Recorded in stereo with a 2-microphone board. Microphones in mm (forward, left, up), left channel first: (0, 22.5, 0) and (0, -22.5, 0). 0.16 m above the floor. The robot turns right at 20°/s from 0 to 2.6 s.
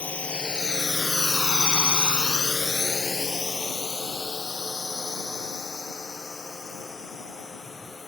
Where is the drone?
30° left (ahead or behind); by 8.1 s 10° left (ahead or behind).